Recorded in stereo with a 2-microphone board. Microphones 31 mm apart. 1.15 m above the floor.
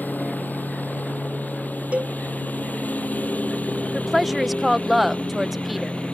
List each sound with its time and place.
0.0 s a lawn mower: 80° left; by 6.2 s 45° left (ahead or behind)
1.9 s a cowbell: 45° right (ahead or behind)
3.9 s a woman speaking: 5° right (ahead or behind)